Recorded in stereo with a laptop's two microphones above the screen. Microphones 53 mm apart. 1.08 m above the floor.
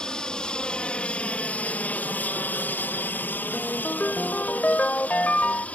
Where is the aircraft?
15° left (ahead or behind); by 5.8 s 25° left (ahead or behind).